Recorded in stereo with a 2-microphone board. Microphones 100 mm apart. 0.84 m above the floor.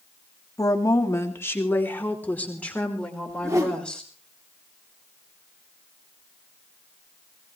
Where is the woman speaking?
35° left (ahead or behind), 1.6 m; by 4.0 s 10° left (ahead or behind), 4 m.